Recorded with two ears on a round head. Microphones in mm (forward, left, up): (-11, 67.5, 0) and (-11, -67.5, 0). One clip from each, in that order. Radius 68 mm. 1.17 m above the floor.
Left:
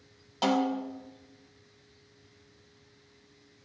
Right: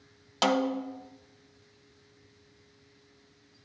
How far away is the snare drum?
About 0.6 m.